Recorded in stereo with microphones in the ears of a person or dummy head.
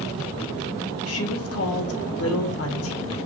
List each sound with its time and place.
1.1 s a woman speaking: 70° left (ahead or behind), 1.3 m